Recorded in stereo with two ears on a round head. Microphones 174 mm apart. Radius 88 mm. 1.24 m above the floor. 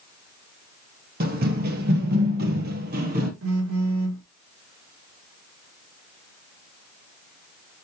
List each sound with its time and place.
1.2 s running footsteps: 50° right (ahead or behind), 2.0 m
3.4 s a phone buzzing: 85° right, 3.5 m